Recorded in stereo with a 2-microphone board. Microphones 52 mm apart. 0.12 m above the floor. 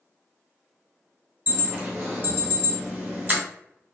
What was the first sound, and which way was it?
An alarm, 35° right (ahead or behind).